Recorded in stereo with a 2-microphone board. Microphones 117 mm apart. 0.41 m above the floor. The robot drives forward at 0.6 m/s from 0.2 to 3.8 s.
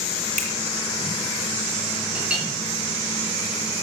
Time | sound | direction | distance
0.4 | a finger snap | 75° right (ahead or behind) | 3 m
2.1 | a clink | 10° right (ahead or behind) | 4.5 m